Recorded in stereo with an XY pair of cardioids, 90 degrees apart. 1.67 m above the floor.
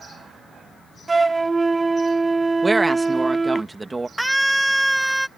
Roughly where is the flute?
Ahead right.